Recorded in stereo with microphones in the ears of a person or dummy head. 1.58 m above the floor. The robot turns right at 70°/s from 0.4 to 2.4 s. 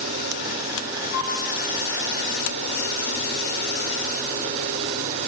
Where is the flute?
80° left, 9.5 m; by 1.4 s 75° left (ahead or behind), 9.5 m.